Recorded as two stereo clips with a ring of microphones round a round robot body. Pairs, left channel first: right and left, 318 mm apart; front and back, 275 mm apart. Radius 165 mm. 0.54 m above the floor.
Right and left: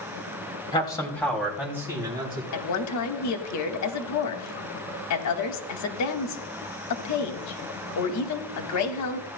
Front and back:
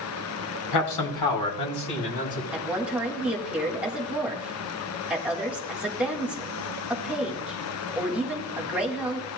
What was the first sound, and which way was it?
A man speaking, 15° right.